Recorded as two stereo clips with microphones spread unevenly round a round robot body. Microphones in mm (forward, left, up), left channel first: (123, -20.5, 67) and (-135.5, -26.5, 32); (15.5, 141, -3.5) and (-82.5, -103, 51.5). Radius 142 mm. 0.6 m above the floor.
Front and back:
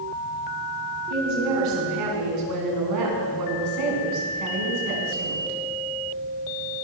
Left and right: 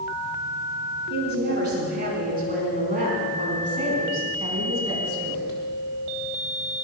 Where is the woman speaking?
165° right, 5.5 m; by 5.6 s 170° left, 4.5 m.